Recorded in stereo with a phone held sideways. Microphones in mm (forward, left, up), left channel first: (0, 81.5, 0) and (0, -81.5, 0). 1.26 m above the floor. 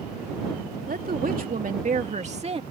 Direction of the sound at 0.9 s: 65° right (ahead or behind).